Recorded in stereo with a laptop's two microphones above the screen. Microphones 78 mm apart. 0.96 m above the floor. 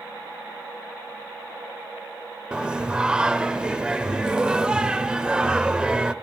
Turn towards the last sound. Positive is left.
turn(degrees=-10)  # may be behind; listen again after turning